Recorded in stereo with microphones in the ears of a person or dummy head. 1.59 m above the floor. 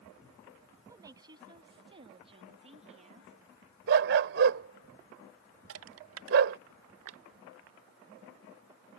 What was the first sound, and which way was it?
A woman speaking, 20° right (ahead or behind).